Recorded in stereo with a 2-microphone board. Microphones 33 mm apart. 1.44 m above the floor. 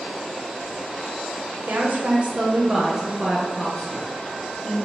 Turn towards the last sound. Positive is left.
turn(degrees=15)  # may be behind; listen again after turning